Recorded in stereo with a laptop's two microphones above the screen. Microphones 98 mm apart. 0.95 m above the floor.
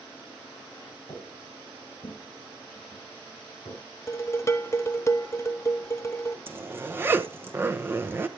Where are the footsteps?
30° left (ahead or behind), 3 m; by 3.8 s 55° left (ahead or behind), 5.5 m.